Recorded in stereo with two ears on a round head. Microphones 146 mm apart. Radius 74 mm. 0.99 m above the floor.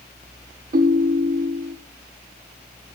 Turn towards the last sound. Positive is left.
turn(degrees=-50)  # may be behind; listen again after turning